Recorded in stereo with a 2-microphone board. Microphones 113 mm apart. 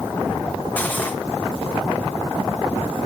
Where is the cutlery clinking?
15° left (ahead or behind), 2 m.